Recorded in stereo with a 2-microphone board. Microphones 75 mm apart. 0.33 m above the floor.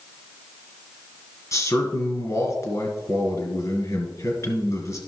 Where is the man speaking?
50° left (ahead or behind), 2.5 m.